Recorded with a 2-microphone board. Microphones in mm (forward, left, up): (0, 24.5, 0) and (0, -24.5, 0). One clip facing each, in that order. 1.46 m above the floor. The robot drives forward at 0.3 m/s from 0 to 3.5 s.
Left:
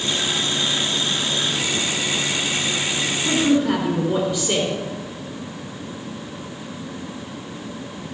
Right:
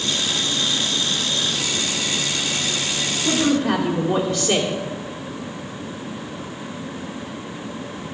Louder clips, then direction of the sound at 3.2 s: Left 1 dB; 60° right (ahead or behind).